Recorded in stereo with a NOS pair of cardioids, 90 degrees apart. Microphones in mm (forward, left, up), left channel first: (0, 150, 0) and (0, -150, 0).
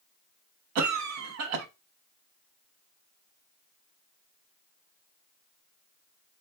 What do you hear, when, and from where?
0.8 s a cough: 70° right, 0.8 m